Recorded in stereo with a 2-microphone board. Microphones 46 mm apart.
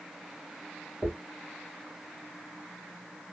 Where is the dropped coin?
5° left (ahead or behind), 2.5 m.